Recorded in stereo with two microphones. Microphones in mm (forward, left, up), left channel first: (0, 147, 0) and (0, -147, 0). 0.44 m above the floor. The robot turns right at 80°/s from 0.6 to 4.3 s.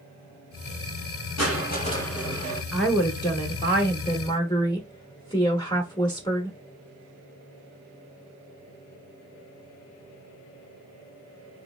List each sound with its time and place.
1.4 s crushing: 120° left, 1.1 m; by 2.6 s 140° right, 1.1 m
2.7 s a woman speaking: centre (ahead or behind), 1.0 m; by 6.6 s 15° left (ahead or behind), 1.0 m